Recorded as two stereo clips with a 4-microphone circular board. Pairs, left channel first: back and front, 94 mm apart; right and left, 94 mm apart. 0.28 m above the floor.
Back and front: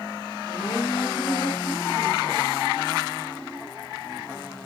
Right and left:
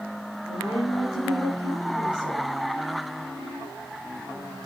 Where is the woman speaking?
115° right, 5.5 m.